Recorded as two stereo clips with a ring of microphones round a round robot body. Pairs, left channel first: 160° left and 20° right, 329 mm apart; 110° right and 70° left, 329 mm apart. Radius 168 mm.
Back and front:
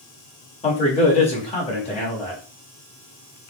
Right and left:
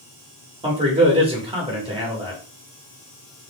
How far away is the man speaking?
About 1.1 m.